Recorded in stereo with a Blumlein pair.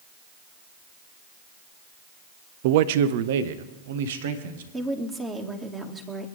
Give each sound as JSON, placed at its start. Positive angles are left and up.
{"t": 2.6, "sound": "a man speaking", "azimuth_deg": -50, "distance_m": 0.5}
{"t": 4.7, "sound": "a woman speaking", "azimuth_deg": -15, "distance_m": 2.5}